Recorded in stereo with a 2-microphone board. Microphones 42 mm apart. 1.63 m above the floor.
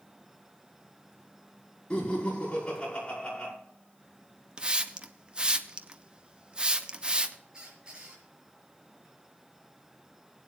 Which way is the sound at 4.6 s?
25° right (ahead or behind).